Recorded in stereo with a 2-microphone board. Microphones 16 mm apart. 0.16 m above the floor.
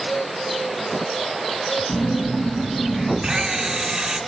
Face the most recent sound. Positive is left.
turn(degrees=-35)  # may be behind; listen again after turning